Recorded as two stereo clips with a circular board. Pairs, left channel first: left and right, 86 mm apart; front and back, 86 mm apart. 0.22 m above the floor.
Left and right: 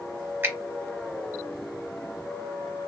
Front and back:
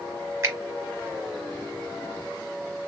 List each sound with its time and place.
0.4 s a finger snap: 140° right, 1.2 m